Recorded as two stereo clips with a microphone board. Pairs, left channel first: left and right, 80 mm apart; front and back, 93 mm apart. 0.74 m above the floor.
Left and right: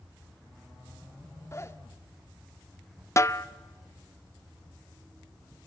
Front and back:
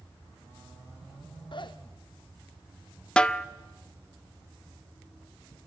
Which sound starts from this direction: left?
A snare drum, at 3.2 s.